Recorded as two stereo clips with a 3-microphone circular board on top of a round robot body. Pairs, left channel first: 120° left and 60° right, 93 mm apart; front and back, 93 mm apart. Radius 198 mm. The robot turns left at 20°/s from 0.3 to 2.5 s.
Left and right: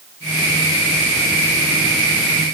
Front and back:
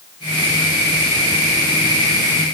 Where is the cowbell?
No cowbell in this recording.